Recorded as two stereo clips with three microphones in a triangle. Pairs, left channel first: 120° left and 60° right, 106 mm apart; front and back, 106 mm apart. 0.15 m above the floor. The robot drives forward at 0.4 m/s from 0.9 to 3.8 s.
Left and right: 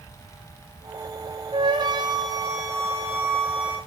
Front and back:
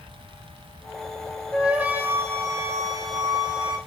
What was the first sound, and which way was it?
A flute, 100° right.